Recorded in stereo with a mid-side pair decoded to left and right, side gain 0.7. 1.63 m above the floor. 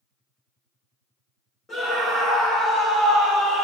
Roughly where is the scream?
Ahead.